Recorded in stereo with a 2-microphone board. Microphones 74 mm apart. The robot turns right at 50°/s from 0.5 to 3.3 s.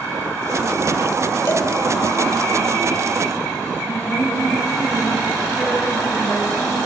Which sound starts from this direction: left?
A cowbell, at 1.5 s.